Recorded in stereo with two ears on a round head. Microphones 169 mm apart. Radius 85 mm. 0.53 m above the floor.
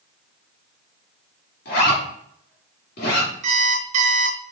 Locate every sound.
1.6 s a zipper: 50° left (ahead or behind), 3 m
3.4 s an alarm clock: 40° right (ahead or behind), 1.2 m